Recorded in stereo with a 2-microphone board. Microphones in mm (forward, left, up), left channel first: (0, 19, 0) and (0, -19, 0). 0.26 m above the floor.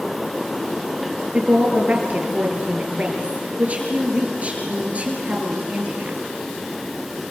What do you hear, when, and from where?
1.3 s a woman speaking: 35° right (ahead or behind), 4.5 m